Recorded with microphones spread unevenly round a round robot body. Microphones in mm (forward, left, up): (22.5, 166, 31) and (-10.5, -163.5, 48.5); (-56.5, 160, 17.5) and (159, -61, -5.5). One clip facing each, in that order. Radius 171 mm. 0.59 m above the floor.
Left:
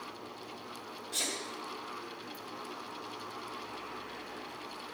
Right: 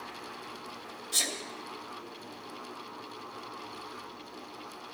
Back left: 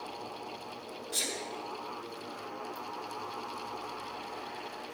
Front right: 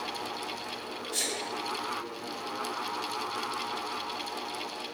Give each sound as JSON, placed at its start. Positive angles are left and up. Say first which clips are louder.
{"t": 1.1, "sound": "a sneeze", "louder": "right 1 dB, front right 3 dB", "azimuth_deg": -145, "distance_m": 1.5}